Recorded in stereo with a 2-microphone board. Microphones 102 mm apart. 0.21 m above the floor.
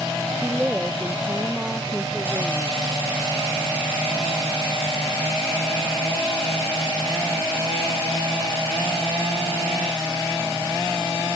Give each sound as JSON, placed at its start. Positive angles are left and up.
{"t": 0.4, "sound": "a woman speaking", "side_deg": -15}